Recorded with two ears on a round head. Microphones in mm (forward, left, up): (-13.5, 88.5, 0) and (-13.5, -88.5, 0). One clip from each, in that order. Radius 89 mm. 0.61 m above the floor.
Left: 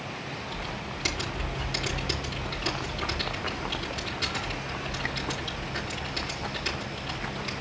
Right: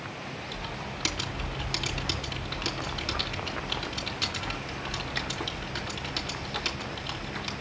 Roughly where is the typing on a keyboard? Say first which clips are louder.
Left 1 dB; right.